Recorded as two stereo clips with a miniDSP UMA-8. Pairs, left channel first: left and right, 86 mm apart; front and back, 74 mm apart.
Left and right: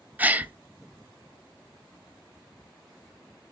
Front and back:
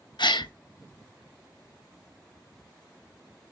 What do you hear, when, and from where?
0.2 s a gasp: 20° right, 0.6 m